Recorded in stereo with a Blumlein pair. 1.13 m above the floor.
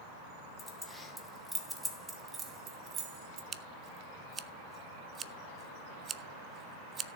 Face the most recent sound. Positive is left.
turn(degrees=-20)